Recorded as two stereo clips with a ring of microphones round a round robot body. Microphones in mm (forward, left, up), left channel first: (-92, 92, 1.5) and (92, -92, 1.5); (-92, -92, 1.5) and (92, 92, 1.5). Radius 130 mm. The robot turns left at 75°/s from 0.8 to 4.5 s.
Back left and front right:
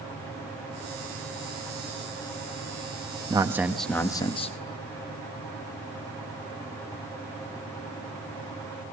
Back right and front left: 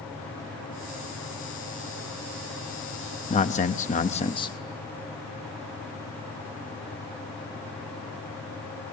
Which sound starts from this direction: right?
A man speaking, at 3.3 s.